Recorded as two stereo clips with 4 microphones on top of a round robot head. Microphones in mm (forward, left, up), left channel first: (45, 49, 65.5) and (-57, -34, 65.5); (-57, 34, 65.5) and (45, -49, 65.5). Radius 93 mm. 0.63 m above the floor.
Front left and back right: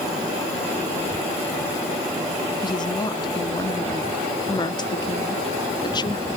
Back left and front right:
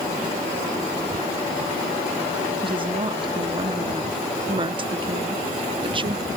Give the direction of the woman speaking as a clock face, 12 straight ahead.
12 o'clock.